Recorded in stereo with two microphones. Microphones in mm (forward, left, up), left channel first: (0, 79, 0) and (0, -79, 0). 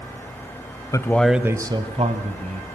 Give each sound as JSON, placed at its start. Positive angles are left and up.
{"t": 0.9, "sound": "a man speaking", "side_deg": 20, "distance_m": 1.0}